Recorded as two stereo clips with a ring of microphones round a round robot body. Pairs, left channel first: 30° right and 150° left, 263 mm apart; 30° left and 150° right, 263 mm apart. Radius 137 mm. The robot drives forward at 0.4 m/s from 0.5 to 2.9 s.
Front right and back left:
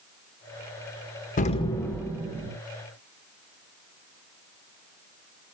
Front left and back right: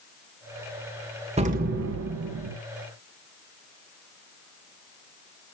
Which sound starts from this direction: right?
An explosion, at 1.4 s.